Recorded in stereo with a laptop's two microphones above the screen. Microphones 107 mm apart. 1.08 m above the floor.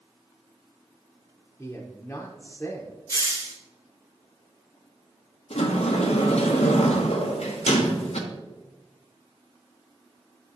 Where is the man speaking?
25° left (ahead or behind), 0.9 m.